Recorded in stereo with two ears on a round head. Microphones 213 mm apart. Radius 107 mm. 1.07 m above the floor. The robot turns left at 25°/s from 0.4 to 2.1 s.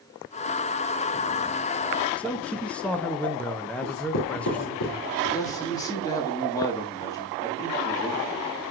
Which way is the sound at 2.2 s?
5° left (ahead or behind).